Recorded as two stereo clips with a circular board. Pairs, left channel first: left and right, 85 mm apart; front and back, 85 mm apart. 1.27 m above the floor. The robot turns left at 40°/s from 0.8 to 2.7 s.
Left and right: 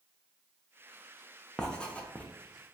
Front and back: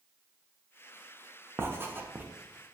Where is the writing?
165° left, 0.6 m; by 2.2 s 140° left, 0.6 m.